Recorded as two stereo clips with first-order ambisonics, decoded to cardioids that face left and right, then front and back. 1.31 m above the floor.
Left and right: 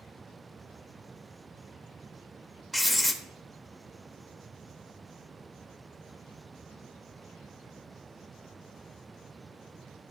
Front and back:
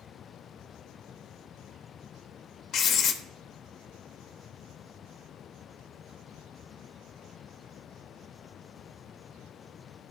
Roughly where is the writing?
Ahead.